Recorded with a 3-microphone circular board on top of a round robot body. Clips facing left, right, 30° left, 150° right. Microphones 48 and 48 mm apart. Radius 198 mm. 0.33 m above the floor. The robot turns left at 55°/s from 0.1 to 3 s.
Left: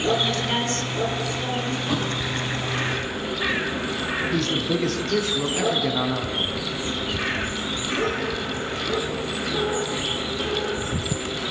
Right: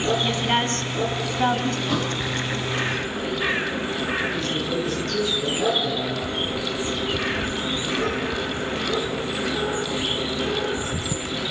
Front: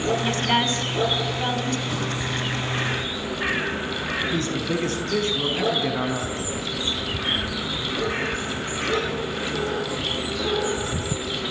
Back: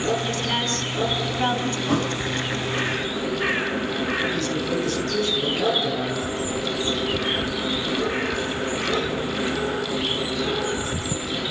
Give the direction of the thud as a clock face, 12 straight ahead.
6 o'clock.